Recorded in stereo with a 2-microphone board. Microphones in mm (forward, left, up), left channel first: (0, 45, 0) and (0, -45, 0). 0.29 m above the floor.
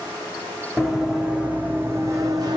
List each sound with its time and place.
0.8 s running footsteps: centre (ahead or behind), 1.1 m; by 2.6 s 50° right (ahead or behind), 1.0 m